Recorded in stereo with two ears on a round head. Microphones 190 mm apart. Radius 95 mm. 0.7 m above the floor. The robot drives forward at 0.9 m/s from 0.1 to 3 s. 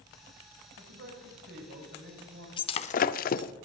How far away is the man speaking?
About 3 m.